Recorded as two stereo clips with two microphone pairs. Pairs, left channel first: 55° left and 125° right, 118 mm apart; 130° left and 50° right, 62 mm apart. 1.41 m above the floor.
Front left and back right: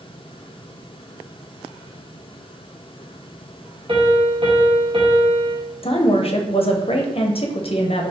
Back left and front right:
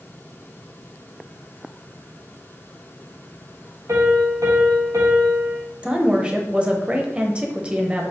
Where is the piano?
85° right, 1.2 m.